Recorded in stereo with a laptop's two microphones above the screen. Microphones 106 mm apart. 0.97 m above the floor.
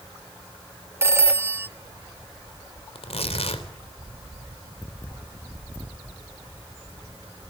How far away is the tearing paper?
About 3 m.